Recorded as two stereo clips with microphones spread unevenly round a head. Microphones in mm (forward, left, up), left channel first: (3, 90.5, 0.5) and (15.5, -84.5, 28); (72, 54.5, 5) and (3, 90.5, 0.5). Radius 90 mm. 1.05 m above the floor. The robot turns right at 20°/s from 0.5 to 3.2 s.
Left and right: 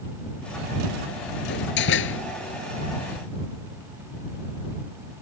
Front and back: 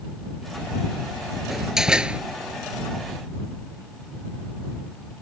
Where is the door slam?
65° left; by 2.2 s 80° left.